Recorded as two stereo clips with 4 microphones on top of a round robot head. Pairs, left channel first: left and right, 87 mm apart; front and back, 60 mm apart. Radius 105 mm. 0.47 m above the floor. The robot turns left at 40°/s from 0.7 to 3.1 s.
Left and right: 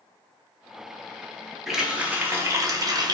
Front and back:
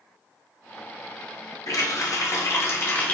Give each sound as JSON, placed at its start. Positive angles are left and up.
{"t": 1.7, "sound": "a running tap", "azimuth_deg": 0, "distance_m": 1.0}